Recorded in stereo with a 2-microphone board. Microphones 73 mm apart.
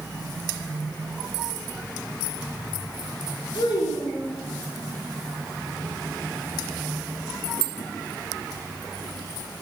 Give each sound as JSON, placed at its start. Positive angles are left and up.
{"t": 3.5, "sound": "a child speaking", "side_deg": 75, "distance_m": 4.5}